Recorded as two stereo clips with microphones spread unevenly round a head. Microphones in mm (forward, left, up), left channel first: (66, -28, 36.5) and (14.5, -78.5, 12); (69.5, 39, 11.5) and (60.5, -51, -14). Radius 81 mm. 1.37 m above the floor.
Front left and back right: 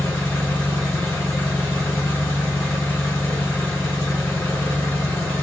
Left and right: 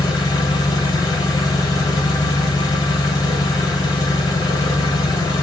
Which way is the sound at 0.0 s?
115° left.